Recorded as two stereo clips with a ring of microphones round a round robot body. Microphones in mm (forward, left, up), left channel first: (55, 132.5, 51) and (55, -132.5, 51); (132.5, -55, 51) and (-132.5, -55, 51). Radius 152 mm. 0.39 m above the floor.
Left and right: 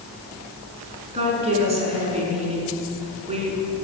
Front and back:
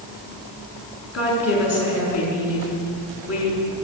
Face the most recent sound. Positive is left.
turn(degrees=-25)